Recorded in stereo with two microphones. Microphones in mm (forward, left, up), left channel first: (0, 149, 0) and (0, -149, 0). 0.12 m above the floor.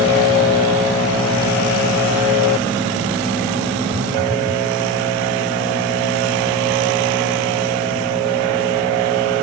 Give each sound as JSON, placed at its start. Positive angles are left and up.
{"t": 3.9, "sound": "a phone buzzing", "side_deg": -40}